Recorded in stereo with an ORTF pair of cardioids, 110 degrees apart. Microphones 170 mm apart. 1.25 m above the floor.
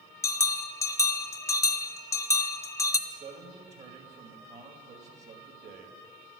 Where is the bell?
15° left, 0.8 m.